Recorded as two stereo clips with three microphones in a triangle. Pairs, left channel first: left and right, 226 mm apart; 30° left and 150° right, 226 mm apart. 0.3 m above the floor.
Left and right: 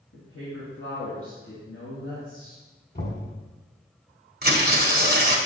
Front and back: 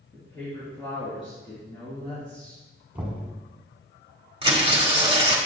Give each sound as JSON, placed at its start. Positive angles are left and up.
{"t": 0.1, "sound": "a woman speaking", "azimuth_deg": 95, "distance_m": 2.5}
{"t": 3.0, "sound": "knocking", "azimuth_deg": 125, "distance_m": 1.9}
{"t": 4.4, "sound": "tearing paper", "azimuth_deg": -95, "distance_m": 1.3}